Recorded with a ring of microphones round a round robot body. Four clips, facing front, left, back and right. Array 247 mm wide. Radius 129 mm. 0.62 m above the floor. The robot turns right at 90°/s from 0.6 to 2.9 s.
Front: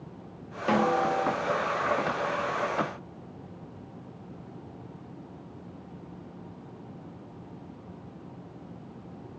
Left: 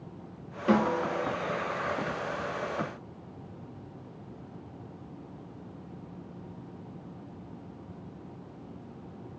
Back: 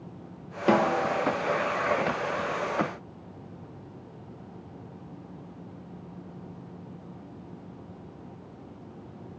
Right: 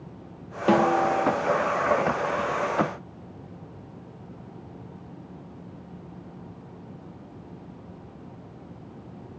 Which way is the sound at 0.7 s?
130° right.